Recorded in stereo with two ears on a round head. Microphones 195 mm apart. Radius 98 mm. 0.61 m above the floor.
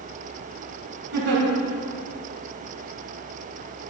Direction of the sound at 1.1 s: 50° right (ahead or behind).